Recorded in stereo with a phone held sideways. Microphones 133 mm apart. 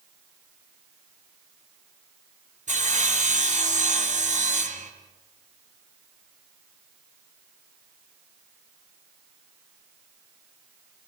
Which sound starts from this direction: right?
Sawing, at 2.7 s.